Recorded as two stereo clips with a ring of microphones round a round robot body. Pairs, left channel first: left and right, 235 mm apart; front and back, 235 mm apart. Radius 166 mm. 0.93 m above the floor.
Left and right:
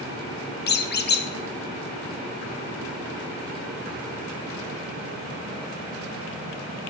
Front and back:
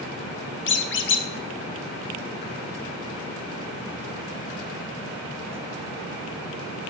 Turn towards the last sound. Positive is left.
turn(degrees=40)